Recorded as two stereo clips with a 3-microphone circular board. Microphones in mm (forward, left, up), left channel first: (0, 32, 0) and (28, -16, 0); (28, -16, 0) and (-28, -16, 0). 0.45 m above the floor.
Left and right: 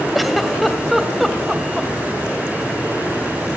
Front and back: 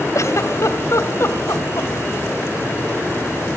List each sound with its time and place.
0.1 s a giggle: 30° left, 1.5 m